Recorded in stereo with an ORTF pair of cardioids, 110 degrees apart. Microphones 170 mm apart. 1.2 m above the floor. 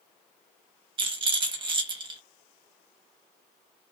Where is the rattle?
30° right, 1.3 m.